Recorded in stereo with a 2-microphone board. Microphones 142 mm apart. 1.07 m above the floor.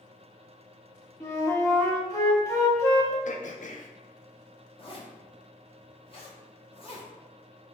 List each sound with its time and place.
1.2 s a flute: 20° left (ahead or behind), 0.9 m
3.2 s throat clearing: 60° left (ahead or behind), 0.5 m
4.8 s a zipper: 40° left (ahead or behind), 1.0 m